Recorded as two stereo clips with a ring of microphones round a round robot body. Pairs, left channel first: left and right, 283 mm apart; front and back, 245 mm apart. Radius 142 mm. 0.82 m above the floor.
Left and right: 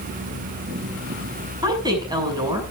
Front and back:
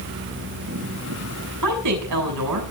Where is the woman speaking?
165° right, 6.5 m.